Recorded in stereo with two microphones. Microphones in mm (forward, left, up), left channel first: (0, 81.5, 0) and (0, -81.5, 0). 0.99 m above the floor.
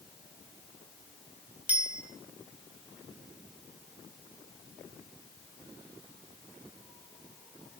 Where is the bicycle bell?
10° right (ahead or behind), 4.5 m.